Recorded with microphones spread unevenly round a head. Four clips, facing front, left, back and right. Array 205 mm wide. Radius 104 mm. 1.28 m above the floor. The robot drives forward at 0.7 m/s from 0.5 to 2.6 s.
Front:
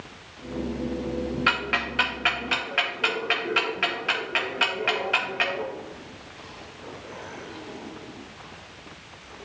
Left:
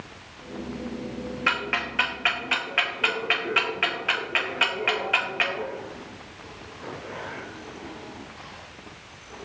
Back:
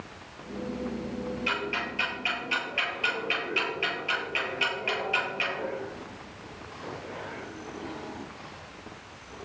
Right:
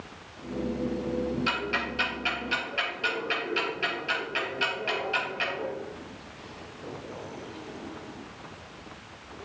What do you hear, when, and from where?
1.5 s ticking: 35° left, 3 m; by 5.7 s 45° left, 2 m